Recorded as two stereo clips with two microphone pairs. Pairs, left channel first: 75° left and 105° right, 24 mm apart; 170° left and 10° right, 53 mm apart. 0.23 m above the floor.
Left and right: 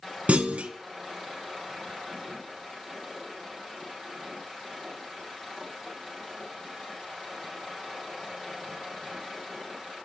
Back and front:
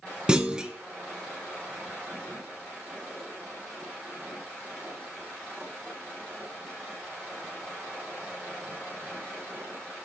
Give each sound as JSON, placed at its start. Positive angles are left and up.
{"t": 0.3, "sound": "a clunk", "azimuth_deg": -85, "distance_m": 0.5}